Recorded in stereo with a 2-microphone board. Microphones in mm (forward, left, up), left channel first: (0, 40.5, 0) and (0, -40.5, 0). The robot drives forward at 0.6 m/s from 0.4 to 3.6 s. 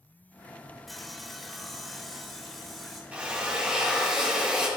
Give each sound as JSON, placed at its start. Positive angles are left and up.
{"t": 0.9, "sound": "sawing", "side_deg": 0, "distance_m": 0.7}
{"t": 3.1, "sound": "a drill", "side_deg": -15, "distance_m": 1.7}